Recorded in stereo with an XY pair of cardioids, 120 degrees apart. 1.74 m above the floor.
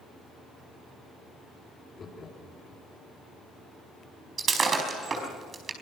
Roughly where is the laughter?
Ahead left.